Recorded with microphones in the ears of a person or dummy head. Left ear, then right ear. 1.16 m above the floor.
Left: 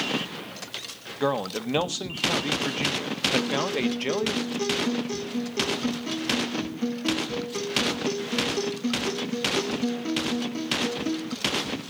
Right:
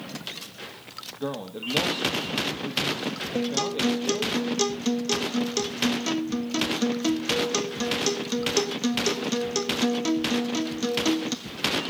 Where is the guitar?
70° right (ahead or behind), 1.7 m.